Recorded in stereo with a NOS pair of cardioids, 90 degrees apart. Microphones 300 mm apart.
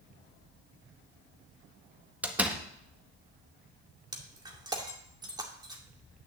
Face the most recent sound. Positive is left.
turn(degrees=-15)